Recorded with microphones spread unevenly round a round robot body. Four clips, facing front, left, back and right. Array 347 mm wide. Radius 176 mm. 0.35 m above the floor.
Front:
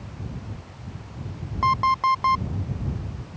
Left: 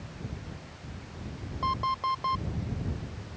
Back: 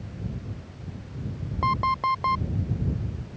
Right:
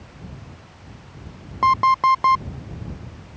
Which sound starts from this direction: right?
An alarm clock, at 1.6 s.